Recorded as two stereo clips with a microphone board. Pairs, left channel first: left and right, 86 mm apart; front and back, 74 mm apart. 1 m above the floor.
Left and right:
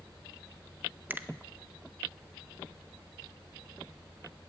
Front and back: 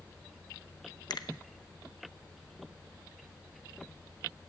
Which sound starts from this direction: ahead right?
A finger snap, at 1.1 s.